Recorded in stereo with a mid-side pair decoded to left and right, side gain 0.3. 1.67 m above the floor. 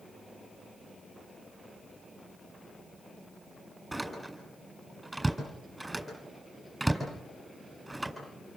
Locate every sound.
3.9 s a door slam: 15° right, 8.5 m